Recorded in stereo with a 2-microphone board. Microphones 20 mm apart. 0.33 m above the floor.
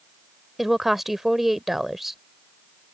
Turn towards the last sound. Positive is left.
turn(degrees=-15)  # may be behind; listen again after turning